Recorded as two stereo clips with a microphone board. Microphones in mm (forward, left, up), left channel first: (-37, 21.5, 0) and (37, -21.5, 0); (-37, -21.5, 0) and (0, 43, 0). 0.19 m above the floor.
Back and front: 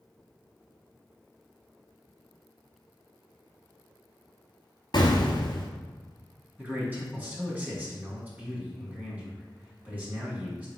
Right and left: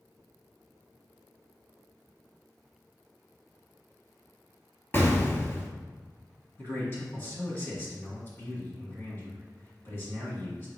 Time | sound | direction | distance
4.9 | an explosion | straight behind | 0.7 m
6.6 | a man speaking | 85° right | 1.8 m